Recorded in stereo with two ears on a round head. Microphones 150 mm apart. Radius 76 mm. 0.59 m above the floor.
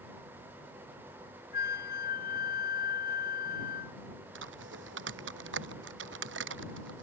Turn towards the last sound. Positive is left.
turn(degrees=-90)